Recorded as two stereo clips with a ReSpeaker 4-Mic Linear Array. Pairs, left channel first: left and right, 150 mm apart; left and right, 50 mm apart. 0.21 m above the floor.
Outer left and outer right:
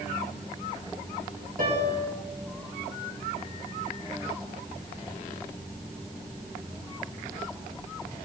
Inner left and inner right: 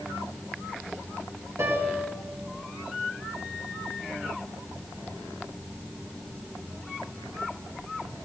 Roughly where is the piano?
Right.